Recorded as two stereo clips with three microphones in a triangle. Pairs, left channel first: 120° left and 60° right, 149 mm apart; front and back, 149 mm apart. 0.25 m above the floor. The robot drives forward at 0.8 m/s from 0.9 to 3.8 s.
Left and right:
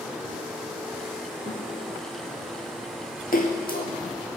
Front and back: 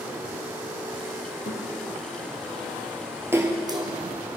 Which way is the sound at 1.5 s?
15° right.